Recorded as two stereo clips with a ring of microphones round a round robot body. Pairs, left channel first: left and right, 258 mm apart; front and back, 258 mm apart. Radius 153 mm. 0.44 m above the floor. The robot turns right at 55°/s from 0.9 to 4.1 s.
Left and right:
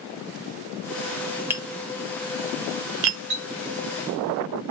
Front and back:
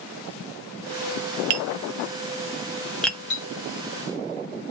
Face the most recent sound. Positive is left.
turn(degrees=0)